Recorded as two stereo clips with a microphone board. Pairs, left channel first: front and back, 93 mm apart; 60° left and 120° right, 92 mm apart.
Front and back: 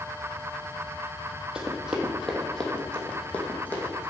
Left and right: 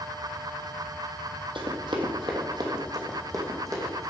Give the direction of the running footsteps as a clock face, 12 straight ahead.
3 o'clock.